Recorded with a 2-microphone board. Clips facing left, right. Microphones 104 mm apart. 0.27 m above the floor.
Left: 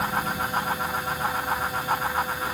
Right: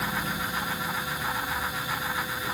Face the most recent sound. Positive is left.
No sound to turn to.